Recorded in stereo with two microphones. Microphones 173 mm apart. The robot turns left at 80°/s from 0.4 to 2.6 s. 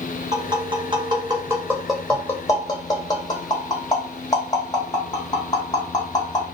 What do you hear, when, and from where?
0.3 s tapping: 20° right (ahead or behind), 0.9 m; by 6.5 s 20° left (ahead or behind), 0.9 m